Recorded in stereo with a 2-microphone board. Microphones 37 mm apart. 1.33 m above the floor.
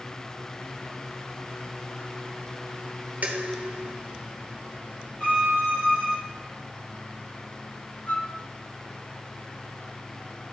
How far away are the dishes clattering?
About 0.9 m.